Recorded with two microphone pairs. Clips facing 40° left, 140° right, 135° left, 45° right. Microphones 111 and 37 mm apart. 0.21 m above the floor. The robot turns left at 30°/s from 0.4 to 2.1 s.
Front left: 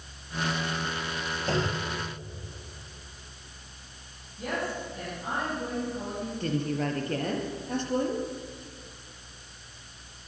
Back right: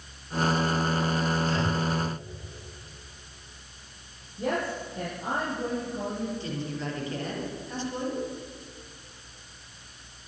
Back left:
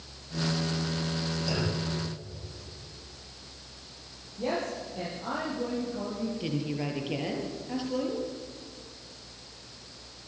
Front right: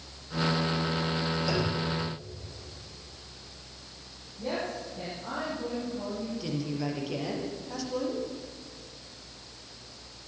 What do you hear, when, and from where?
1.5 s a clunk: 35° left, 8.5 m; by 1.9 s 25° left, 8.5 m
4.4 s a woman speaking: 155° left, 8 m
6.4 s a woman speaking: 70° left, 5.5 m